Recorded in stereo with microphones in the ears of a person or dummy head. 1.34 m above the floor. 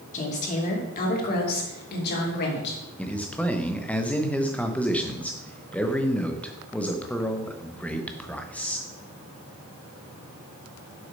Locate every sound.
0.1 s a woman speaking: 35° left (ahead or behind), 2.5 m; by 2.8 s 55° left (ahead or behind), 3.5 m
3.0 s a man speaking: 5° left (ahead or behind), 1.1 m